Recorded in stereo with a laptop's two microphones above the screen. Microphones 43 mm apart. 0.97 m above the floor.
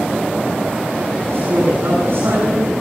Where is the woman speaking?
65° right (ahead or behind), 8 m.